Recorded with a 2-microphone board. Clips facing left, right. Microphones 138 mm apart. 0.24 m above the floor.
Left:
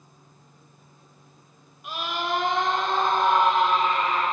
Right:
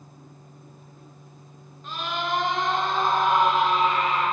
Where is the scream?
15° left (ahead or behind), 2.5 m; by 4.2 s 15° right (ahead or behind), 5 m.